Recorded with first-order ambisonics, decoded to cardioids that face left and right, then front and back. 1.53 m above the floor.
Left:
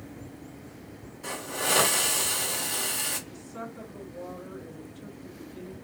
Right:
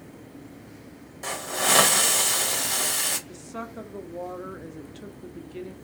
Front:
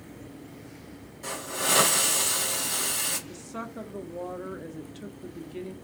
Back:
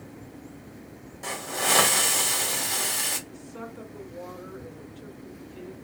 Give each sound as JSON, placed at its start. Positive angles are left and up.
{"t": 1.2, "sound": "a hiss", "azimuth_deg": -110, "distance_m": 1.4}
{"t": 3.3, "sound": "a woman speaking", "azimuth_deg": -40, "distance_m": 0.7}